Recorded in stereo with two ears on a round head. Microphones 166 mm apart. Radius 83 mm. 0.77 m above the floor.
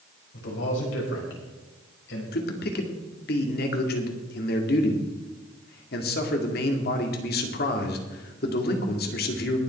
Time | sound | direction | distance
0.3 | a man speaking | 70° left (ahead or behind) | 5 m
2.3 | a man speaking | 55° left (ahead or behind) | 2 m